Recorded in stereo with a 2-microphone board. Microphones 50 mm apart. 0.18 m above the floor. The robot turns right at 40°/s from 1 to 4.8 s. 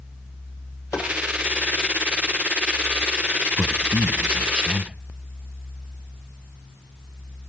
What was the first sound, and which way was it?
Tapping, 75° left (ahead or behind).